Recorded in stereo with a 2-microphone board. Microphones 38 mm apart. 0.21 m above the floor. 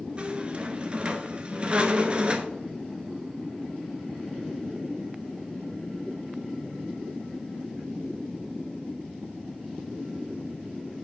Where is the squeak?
30° right (ahead or behind), 0.7 m.